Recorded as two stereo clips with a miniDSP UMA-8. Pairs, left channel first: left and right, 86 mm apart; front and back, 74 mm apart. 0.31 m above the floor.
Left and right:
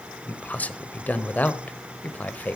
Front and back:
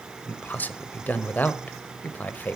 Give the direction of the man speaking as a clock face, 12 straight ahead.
11 o'clock.